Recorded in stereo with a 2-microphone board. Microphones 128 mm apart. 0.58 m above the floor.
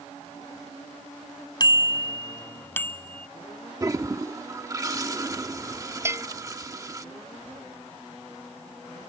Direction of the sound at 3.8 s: 25° right (ahead or behind).